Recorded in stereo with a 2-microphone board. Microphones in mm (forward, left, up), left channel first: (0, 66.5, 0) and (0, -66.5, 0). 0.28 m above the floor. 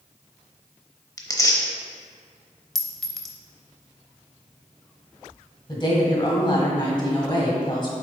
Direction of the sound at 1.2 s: 25° left (ahead or behind).